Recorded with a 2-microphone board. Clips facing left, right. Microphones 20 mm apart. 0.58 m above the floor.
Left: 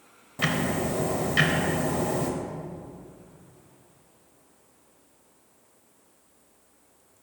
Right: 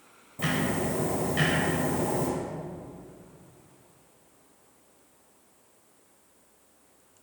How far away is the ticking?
About 0.8 m.